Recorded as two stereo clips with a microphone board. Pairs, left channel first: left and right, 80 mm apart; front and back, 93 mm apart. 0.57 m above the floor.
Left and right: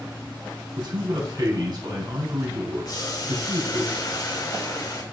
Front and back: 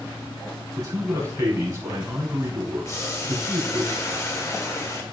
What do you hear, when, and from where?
0.8 s a man speaking: 125° right, 3.5 m
2.9 s boiling: 55° left, 1.7 m